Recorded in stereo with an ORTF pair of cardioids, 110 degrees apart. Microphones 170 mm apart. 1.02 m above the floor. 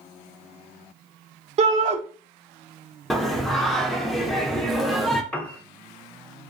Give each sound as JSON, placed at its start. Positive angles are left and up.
{"t": 1.6, "sound": "a shout", "azimuth_deg": -40, "distance_m": 0.9}
{"t": 3.1, "sound": "singing", "azimuth_deg": 0, "distance_m": 0.5}
{"t": 5.3, "sound": "a piano", "azimuth_deg": 5, "distance_m": 0.5}